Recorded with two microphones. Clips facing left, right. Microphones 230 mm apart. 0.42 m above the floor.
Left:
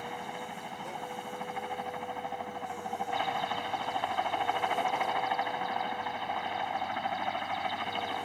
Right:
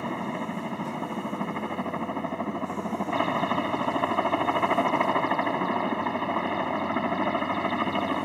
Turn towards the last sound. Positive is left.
turn(degrees=-65)  # may be behind; listen again after turning